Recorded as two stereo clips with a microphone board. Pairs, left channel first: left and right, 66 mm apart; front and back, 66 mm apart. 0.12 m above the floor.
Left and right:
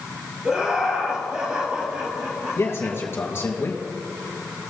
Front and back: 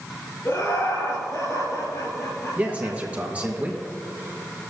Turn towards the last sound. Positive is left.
turn(degrees=120)